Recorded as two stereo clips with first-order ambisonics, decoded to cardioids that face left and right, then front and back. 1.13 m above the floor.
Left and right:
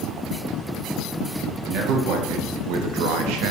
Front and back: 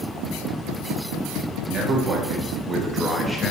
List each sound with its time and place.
1.7 s a man speaking: 120° right, 1.7 m; by 3.5 s 75° right, 1.0 m